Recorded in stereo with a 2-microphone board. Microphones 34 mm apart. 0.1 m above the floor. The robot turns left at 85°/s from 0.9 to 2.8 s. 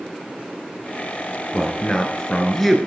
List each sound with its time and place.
1.5 s a man speaking: 20° left (ahead or behind), 1.7 m; by 2.8 s centre (ahead or behind), 1.7 m